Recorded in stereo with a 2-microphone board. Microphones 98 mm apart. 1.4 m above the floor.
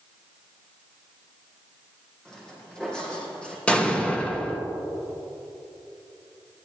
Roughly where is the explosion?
Centre.